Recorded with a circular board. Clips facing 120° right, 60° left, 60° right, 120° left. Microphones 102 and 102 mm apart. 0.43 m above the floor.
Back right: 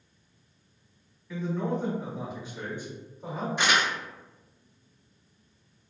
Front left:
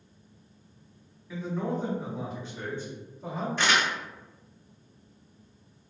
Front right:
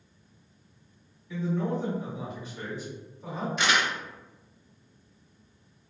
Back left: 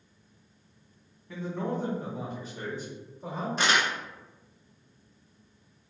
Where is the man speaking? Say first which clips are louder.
Back right 1 dB, front right 3 dB; 130° left, 1.3 m; by 3.5 s 160° right, 1.3 m.